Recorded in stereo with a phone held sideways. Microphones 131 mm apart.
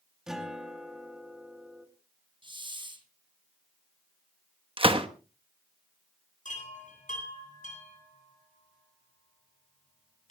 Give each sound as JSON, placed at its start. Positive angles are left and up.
{"t": 0.3, "sound": "a guitar", "side_deg": -5, "distance_m": 2.5}
{"t": 2.4, "sound": "a hiss", "side_deg": -40, "distance_m": 2.5}
{"t": 4.8, "sound": "a gunshot", "side_deg": -45, "distance_m": 1.1}
{"t": 6.5, "sound": "a chime", "side_deg": 75, "distance_m": 9.0}